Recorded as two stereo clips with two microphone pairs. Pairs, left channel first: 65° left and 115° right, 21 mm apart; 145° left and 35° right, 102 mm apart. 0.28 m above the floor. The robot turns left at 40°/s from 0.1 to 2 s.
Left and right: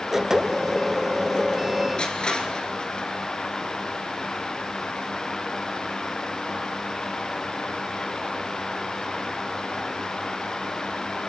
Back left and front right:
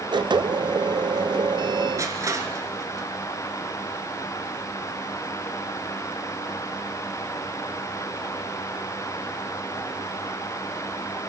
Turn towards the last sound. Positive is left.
turn(degrees=20)